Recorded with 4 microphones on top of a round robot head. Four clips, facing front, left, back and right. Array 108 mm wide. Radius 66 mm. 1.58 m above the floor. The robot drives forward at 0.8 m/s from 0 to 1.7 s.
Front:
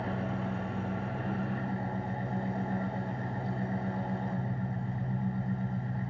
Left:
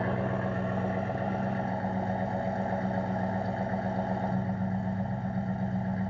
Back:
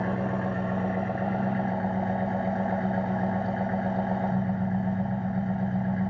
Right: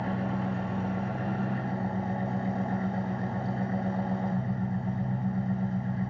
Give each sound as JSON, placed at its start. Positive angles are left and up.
{"t": 0.0, "sound": "an engine running", "azimuth_deg": 135, "distance_m": 1.6}